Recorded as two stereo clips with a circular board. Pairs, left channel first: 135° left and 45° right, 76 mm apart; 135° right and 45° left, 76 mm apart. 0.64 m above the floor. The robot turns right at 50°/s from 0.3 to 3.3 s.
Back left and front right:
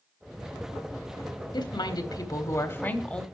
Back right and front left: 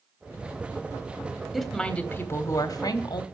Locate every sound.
1.5 s a woman speaking: 130° left, 1.4 m; by 3.2 s 145° right, 1.4 m